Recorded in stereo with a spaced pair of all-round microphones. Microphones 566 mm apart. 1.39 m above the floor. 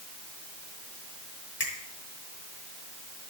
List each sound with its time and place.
1.6 s a finger snap: 85° left, 2.5 m